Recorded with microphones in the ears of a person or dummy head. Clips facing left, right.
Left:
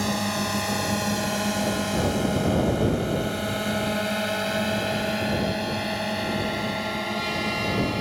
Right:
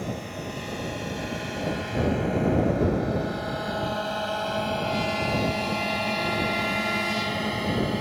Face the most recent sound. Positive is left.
turn(degrees=-10)  # may be behind; listen again after turning